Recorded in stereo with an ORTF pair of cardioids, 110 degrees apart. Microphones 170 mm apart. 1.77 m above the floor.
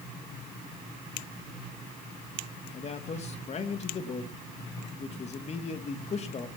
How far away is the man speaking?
About 2.5 m.